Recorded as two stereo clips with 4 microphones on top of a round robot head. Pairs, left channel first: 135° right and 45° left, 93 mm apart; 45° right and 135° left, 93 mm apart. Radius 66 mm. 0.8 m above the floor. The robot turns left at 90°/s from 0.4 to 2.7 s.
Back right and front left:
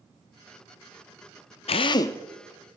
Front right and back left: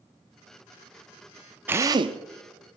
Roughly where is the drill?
Behind right.